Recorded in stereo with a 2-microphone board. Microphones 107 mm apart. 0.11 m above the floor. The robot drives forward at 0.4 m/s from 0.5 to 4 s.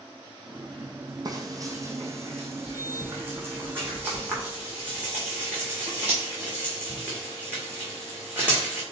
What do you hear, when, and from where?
1.2 s frying: 35° right (ahead or behind), 1.0 m; by 8.8 s 15° right (ahead or behind), 1.9 m